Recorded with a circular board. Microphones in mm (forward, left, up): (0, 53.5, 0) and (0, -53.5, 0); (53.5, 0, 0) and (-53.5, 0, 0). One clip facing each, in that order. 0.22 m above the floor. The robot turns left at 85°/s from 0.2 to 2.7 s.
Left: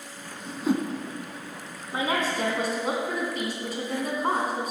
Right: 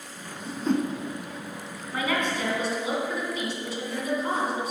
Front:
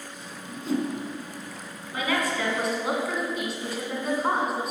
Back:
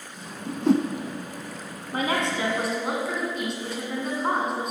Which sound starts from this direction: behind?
A whoosh, at 0.5 s.